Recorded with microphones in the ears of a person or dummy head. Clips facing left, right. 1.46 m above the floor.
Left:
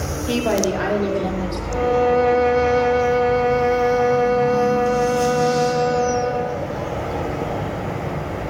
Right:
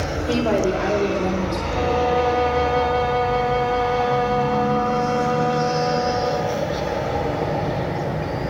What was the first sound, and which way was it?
A woman speaking, 5° left (ahead or behind).